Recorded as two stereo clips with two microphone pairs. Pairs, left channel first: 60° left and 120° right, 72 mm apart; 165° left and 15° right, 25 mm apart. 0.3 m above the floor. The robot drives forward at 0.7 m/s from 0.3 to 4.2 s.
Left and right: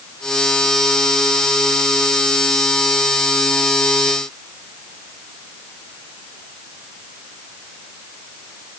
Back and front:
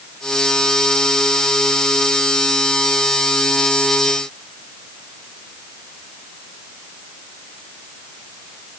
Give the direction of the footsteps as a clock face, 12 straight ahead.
No footsteps in this recording.